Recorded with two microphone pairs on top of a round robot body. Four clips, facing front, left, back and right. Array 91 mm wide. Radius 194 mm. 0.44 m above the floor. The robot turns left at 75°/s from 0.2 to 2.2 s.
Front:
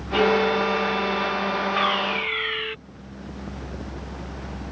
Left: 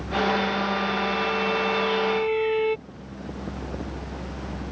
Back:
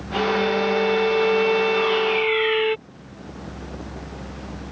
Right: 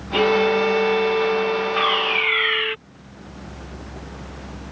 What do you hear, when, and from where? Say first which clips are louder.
0.1 s a violin: right 6 dB, front 1 dB; 60° right; by 2.8 s 150° left
1.8 s a fire alarm: right 2 dB, back 3 dB; 55° right; by 2.8 s 90° right